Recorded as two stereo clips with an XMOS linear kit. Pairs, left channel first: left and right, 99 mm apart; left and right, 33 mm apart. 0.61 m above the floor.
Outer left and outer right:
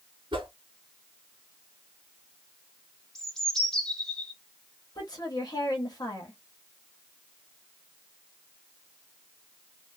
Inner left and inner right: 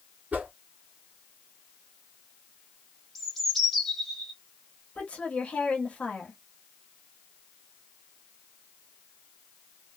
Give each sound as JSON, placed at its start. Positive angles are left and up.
{"t": 0.3, "sound": "a whoosh", "side_deg": -55, "distance_m": 1.0}
{"t": 3.1, "sound": "a bird", "side_deg": 5, "distance_m": 0.7}
{"t": 5.0, "sound": "a woman speaking", "side_deg": 40, "distance_m": 1.1}